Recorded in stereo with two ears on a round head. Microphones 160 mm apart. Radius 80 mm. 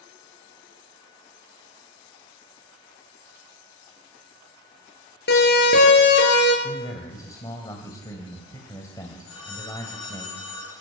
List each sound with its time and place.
5.3 s a siren: 60° left (ahead or behind), 7.5 m; by 6.5 s 70° left (ahead or behind), 8 m
6.6 s a man speaking: 20° left (ahead or behind), 3 m
9.3 s a phone ringing: 80° left, 6 m